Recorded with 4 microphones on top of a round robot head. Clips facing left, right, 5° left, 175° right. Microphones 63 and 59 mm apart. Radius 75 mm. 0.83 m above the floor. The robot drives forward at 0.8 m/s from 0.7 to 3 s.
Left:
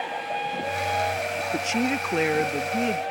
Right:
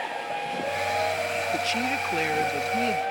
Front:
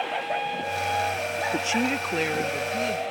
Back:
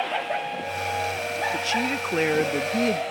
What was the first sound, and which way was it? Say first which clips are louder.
A woman speaking: left 1 dB, even; 30° left.